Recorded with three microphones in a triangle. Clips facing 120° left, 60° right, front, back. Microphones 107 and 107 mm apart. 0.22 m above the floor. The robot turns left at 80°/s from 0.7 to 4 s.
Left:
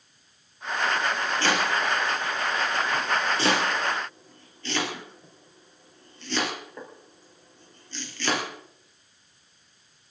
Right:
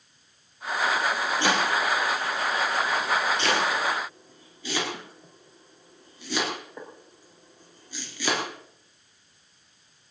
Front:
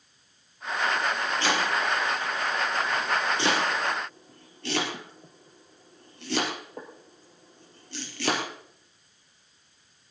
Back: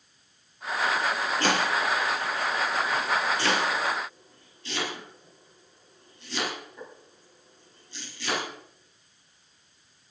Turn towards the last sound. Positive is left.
turn(degrees=20)